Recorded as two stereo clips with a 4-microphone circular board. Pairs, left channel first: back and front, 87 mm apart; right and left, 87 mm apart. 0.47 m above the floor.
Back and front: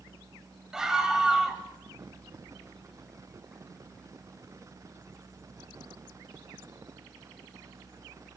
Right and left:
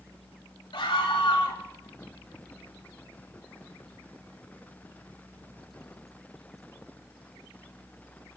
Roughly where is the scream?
Right.